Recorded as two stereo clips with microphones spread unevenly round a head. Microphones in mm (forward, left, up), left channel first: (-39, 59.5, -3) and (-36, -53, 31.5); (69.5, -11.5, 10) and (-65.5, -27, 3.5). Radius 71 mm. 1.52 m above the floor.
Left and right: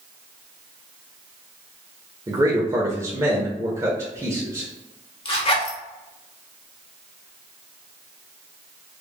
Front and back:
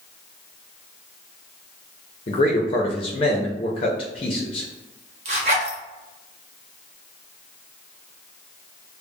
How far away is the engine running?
I don't hear an engine running.